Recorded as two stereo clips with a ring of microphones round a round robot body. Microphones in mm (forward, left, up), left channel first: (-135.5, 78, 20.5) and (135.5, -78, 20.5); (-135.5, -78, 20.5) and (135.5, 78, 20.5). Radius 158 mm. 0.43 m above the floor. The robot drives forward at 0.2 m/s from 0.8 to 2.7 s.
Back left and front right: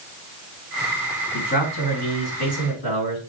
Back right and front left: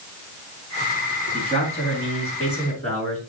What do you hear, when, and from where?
1.3 s a man speaking: 140° left, 4.5 m